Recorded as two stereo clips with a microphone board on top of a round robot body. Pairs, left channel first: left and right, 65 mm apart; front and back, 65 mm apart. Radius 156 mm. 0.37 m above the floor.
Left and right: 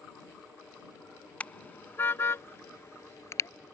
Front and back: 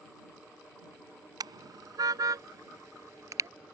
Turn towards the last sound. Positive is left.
turn(degrees=135)